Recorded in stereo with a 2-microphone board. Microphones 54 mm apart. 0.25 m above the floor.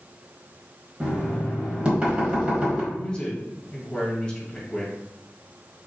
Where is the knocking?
20° right (ahead or behind), 1.3 m.